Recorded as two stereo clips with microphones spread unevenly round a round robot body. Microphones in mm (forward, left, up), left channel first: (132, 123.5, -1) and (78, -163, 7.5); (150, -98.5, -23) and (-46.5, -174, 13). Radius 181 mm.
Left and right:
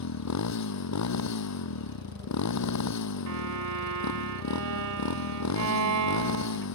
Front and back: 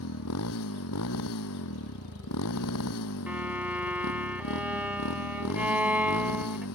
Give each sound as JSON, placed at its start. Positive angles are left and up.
{"t": 0.0, "sound": "a motorcycle", "azimuth_deg": 50}
{"t": 3.3, "sound": "a violin", "azimuth_deg": -80}